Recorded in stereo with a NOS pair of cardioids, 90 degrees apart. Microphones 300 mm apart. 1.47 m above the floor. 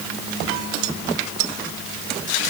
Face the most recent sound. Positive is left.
No sound to turn to.